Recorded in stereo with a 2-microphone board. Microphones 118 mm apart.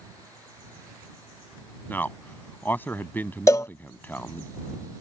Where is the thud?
I don't hear a thud.